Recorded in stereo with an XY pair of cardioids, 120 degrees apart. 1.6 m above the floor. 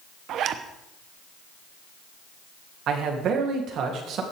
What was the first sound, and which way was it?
A zipper, 65° right.